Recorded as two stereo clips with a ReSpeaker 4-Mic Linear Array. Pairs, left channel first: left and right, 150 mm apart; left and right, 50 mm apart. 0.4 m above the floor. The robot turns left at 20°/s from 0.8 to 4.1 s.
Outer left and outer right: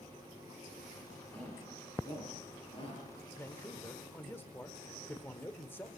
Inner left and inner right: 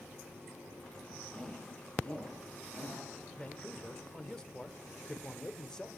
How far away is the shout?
About 7.5 m.